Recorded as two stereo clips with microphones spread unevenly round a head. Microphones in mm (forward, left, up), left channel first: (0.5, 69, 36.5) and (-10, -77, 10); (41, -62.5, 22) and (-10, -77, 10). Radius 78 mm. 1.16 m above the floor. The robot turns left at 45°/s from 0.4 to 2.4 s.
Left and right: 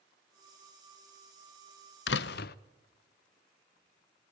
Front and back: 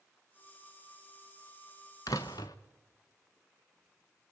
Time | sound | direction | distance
2.1 | a door slam | 75° left | 0.6 m